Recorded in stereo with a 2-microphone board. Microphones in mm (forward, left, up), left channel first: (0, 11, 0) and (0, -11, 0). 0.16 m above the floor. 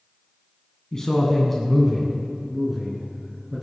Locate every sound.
0.9 s a man speaking: 25° left (ahead or behind), 1.6 m; by 3.6 s 15° right (ahead or behind), 3 m